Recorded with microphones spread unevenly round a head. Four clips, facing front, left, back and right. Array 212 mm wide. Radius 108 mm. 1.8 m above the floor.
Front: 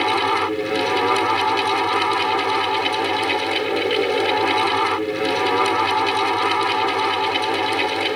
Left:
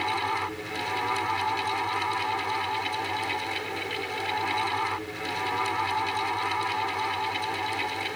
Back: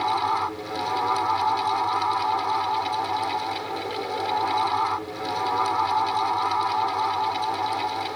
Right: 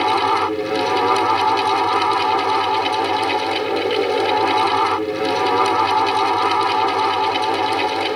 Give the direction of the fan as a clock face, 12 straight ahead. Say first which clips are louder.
Right 12 dB, front 4 dB; 2 o'clock.